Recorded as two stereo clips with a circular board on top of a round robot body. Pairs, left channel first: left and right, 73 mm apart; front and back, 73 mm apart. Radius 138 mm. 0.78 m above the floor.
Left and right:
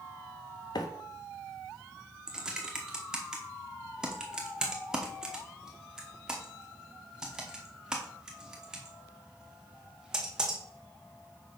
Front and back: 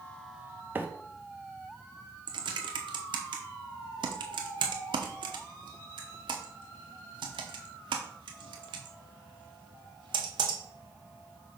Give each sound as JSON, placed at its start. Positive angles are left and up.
{"t": 0.8, "sound": "a microwave", "azimuth_deg": 115, "distance_m": 0.8}
{"t": 2.3, "sound": "typing on a keyboard", "azimuth_deg": -170, "distance_m": 0.8}